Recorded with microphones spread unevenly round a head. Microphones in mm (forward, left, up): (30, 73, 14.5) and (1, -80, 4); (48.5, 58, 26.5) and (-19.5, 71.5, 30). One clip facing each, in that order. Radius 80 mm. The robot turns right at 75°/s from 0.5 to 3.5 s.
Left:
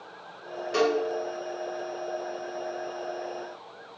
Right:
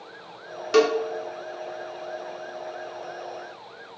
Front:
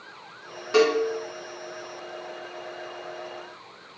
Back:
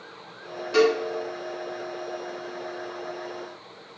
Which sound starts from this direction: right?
A cowbell, at 0.7 s.